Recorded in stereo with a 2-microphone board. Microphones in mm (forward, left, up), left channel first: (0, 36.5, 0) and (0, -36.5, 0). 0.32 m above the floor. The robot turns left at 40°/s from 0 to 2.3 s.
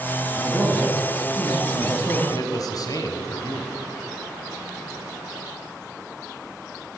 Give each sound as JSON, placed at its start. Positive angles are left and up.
{"t": 0.4, "sound": "a man speaking", "azimuth_deg": -165, "distance_m": 3.5}
{"t": 2.3, "sound": "a man speaking", "side_deg": 55, "distance_m": 1.4}